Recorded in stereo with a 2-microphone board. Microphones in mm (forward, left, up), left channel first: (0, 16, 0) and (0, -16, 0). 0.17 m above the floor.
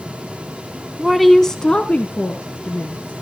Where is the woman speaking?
10° right (ahead or behind), 1.1 m; by 3.1 s 65° left (ahead or behind), 2.5 m.